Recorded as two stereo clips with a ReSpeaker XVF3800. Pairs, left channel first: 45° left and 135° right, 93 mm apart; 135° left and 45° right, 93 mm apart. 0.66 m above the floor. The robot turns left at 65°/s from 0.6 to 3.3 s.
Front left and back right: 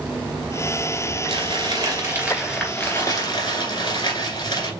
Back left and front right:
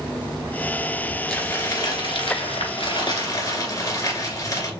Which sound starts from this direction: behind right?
Crumpling, at 1.3 s.